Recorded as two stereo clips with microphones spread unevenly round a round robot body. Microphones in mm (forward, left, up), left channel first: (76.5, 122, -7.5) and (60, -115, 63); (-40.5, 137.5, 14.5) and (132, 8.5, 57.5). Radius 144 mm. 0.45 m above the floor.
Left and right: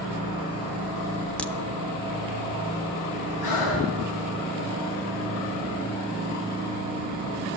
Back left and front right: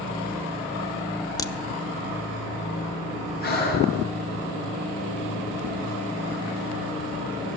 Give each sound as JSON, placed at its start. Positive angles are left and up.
{"t": 1.4, "sound": "a crack", "azimuth_deg": 125, "distance_m": 0.6}
{"t": 3.4, "sound": "breathing", "azimuth_deg": 105, "distance_m": 4.5}